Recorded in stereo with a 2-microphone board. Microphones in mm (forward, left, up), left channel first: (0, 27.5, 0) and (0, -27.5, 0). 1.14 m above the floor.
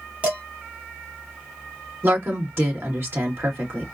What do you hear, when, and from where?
0.2 s dishes clattering: 25° right (ahead or behind), 1.7 m
2.0 s a woman speaking: 45° right (ahead or behind), 2.0 m